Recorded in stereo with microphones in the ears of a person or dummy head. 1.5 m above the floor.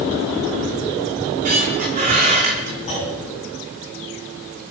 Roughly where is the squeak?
Right.